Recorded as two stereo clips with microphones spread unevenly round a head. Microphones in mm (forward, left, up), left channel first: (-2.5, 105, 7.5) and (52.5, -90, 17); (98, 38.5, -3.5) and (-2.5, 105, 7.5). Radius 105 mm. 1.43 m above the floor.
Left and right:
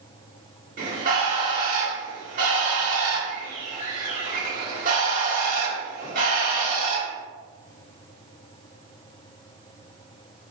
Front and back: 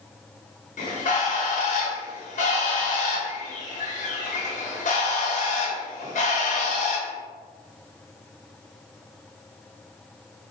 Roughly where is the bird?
Ahead right.